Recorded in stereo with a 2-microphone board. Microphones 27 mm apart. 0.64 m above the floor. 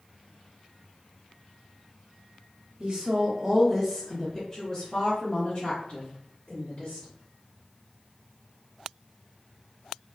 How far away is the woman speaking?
About 1.1 m.